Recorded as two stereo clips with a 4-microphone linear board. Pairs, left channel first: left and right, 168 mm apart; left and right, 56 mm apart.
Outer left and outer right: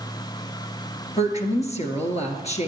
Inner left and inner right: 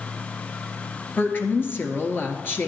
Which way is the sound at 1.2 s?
40° left (ahead or behind).